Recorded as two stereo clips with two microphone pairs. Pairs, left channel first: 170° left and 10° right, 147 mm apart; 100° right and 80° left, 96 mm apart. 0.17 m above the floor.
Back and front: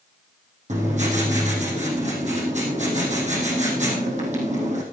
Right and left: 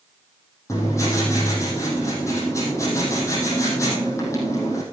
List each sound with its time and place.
0.7 s writing: 45° right, 4 m